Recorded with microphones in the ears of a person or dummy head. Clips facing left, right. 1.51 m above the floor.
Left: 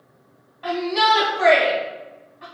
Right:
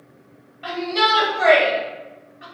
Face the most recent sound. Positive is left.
turn(degrees=-20)  # may be behind; listen again after turning